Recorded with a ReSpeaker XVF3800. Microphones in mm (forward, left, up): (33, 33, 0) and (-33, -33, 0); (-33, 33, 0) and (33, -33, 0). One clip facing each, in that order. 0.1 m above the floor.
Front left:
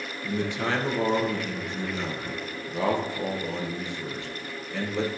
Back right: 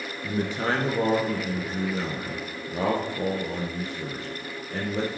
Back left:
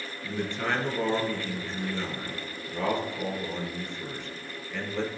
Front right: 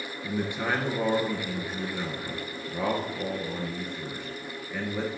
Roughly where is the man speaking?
Behind right.